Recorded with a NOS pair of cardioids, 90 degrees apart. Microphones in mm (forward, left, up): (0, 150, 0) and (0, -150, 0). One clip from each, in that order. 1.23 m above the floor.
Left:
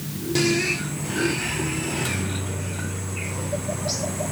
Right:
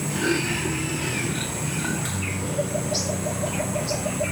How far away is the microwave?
About 2 m.